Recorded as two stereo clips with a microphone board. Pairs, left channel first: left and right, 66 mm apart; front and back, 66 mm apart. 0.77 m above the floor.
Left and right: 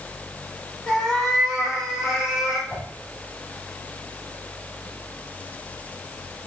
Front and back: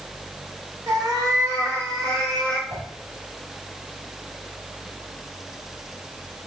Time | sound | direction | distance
0.9 | a cat meowing | 170° left | 1.8 m
2.7 | a whoosh | 155° left | 3.5 m